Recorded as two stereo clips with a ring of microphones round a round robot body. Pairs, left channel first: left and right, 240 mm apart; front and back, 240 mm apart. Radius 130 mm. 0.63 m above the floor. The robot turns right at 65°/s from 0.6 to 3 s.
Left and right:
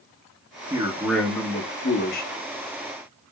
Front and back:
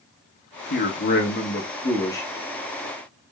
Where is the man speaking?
25° right, 1.2 m; by 2.3 s 80° left, 1.2 m.